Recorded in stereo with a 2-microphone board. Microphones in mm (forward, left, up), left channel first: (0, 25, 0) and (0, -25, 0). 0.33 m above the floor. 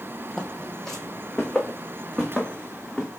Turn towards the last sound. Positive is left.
turn(degrees=10)  # may be behind; listen again after turning